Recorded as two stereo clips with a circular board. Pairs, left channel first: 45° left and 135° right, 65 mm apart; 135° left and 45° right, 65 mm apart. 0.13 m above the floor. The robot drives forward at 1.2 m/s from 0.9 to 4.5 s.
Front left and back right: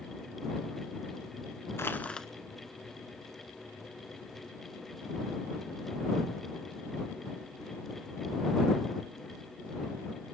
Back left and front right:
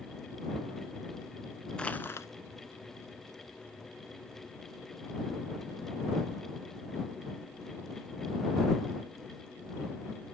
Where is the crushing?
65° left, 0.8 m; by 2.3 s 125° left, 0.8 m.